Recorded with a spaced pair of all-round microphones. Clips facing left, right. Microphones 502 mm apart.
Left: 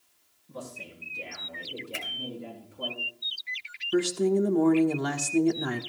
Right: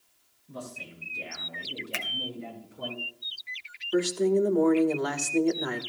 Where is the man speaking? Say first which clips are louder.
Even; 85° right, 7.5 m; by 2.9 s 80° right, 10 m.